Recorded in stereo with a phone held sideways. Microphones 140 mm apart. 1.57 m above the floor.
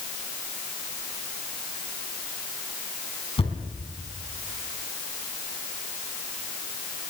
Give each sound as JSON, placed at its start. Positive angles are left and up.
{"t": 3.4, "sound": "a thud", "side_deg": 45, "distance_m": 3.5}